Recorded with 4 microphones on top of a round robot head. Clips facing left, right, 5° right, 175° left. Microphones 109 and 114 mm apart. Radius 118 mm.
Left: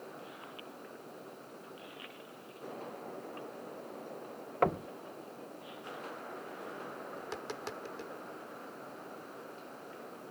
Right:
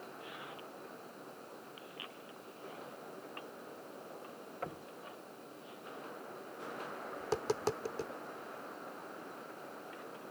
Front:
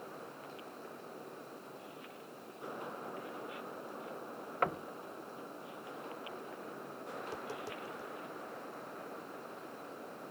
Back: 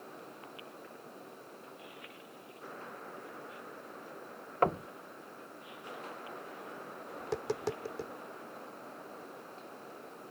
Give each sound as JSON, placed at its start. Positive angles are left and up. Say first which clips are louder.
{"t": 4.6, "sound": "knocking", "louder": "left 15 dB, back 6 dB", "azimuth_deg": 115}
{"t": 7.2, "sound": "tapping", "louder": "right 10 dB, back 10 dB", "azimuth_deg": -145}